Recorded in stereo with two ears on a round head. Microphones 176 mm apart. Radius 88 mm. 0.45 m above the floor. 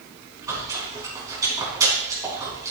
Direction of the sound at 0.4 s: 20° right (ahead or behind).